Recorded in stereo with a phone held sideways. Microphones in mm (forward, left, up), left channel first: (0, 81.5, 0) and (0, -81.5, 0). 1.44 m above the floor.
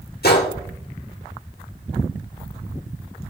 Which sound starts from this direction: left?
A gunshot, at 0.2 s.